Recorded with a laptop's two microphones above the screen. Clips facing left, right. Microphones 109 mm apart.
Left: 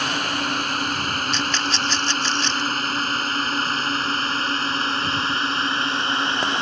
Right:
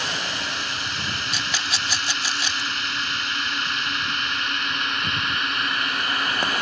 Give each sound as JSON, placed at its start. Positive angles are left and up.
{"t": 0.0, "sound": "a drone", "side_deg": 50}
{"t": 1.3, "sound": "a rattle", "side_deg": -10}